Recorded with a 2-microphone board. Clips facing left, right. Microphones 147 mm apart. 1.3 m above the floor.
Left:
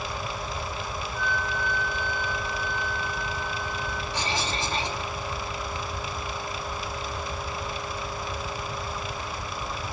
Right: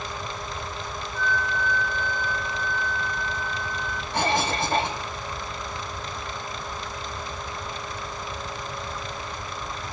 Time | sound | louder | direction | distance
1.1 | a flute | right 3 dB | 15° left (ahead or behind) | 1.7 m
4.1 | a cough | right 8 dB | 55° right (ahead or behind) | 3 m